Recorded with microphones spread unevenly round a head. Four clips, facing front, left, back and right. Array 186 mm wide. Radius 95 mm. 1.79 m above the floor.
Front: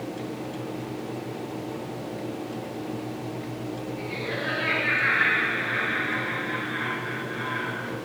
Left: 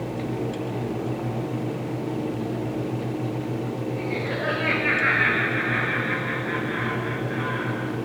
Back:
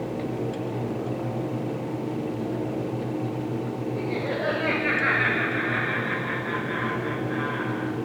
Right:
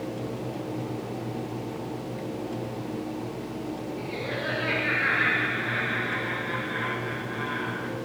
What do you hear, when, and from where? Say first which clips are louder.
4.0 s laughter: left 5 dB, back 4 dB; 165° left, 8.5 m; by 7.9 s 165° right, 9 m